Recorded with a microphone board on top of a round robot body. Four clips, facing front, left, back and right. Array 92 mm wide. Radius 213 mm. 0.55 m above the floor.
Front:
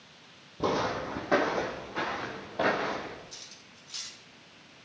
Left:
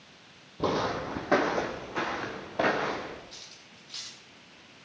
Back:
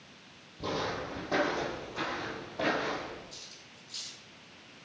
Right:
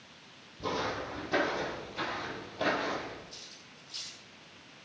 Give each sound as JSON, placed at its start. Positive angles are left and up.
{"t": 0.6, "sound": "footsteps", "azimuth_deg": 50, "distance_m": 1.8}
{"t": 3.3, "sound": "cutlery clinking", "azimuth_deg": 45, "distance_m": 2.5}